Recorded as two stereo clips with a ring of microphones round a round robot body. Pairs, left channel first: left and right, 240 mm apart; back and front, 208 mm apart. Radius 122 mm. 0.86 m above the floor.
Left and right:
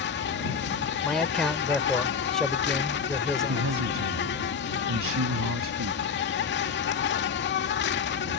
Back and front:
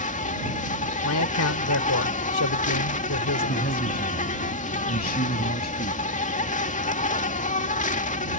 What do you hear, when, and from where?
0.0 s an insect: 130° left
1.0 s a man speaking: 175° left
3.5 s a man speaking: 125° right